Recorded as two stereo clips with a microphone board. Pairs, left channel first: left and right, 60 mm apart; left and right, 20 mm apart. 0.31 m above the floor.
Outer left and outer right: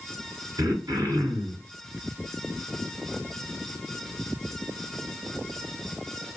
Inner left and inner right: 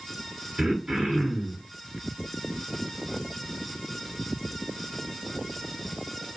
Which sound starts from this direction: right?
Throat clearing, at 0.6 s.